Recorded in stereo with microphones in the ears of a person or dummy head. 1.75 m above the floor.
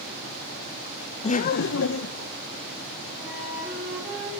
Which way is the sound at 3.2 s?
5° right (ahead or behind).